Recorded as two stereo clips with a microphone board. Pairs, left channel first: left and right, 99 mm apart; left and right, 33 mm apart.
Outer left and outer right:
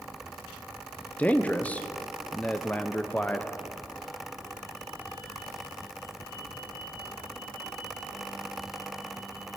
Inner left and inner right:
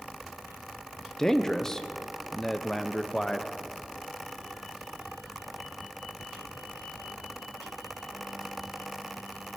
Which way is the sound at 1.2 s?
15° left (ahead or behind).